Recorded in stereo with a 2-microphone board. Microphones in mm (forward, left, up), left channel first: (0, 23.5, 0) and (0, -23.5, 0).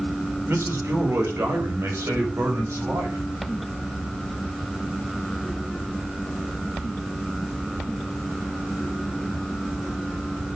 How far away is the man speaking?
About 4 m.